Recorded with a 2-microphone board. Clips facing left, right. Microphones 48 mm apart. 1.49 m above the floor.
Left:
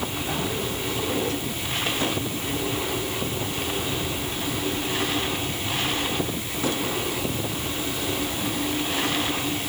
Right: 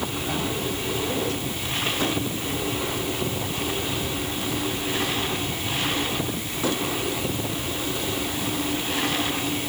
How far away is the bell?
I don't hear a bell.